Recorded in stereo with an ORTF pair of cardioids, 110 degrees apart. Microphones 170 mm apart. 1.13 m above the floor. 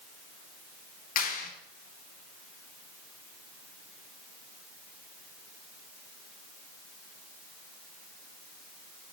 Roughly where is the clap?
Ahead left.